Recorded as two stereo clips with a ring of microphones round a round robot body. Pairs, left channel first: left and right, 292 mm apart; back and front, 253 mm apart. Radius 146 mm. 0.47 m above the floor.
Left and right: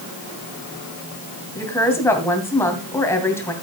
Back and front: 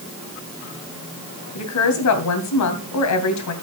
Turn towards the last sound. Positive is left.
turn(degrees=170)